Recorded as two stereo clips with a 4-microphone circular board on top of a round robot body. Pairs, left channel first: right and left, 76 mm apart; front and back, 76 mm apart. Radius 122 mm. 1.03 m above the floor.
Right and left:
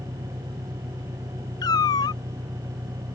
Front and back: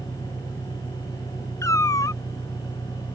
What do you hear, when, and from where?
0.0 s an engine running: 120° left
1.6 s a cat meowing: 50° right